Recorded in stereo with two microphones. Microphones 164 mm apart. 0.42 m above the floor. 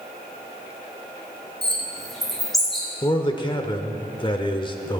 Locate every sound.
1.6 s a bird: centre (ahead or behind), 3.5 m
3.0 s a man speaking: 30° left (ahead or behind), 0.9 m